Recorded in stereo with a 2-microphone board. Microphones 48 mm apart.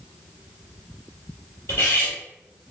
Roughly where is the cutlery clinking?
Left.